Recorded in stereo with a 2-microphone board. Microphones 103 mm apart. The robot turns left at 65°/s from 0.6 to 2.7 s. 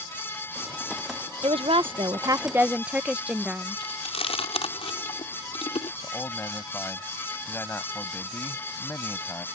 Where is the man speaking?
20° left (ahead or behind).